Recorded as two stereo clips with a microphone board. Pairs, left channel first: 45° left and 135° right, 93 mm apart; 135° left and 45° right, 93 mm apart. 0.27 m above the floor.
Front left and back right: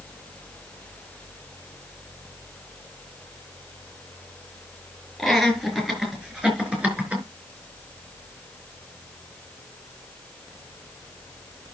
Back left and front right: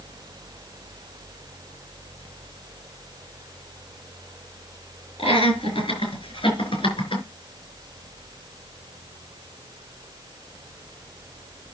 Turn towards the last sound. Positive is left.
turn(degrees=155)